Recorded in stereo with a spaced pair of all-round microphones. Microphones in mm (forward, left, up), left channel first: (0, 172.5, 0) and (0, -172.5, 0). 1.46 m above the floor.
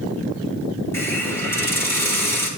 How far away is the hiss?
About 1.3 m.